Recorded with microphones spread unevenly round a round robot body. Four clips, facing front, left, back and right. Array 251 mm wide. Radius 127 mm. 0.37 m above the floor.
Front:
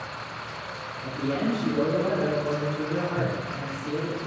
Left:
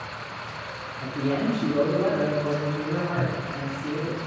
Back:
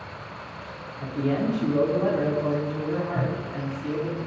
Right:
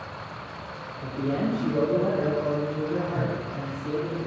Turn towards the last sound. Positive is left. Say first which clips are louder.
# left 1 dB, even
turn(degrees=-155)